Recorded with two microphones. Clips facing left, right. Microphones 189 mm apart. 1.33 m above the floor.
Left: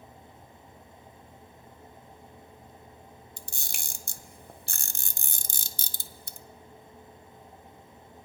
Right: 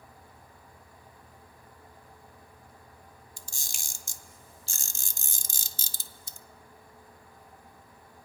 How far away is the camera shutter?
About 0.6 m.